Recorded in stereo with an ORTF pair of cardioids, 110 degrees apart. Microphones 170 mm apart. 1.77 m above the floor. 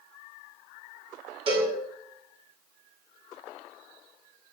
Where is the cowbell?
35° right, 3 m.